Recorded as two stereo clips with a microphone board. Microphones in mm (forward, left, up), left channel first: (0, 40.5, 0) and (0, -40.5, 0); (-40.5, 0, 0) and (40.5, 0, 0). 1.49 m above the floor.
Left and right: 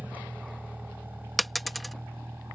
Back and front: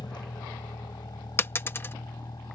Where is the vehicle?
160° right; by 2.6 s 150° right.